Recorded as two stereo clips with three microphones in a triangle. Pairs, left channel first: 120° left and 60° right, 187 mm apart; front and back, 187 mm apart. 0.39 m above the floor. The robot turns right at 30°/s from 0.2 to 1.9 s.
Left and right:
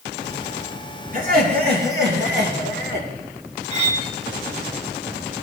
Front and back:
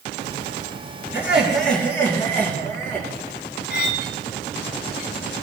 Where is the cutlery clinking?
10° right, 1.5 m.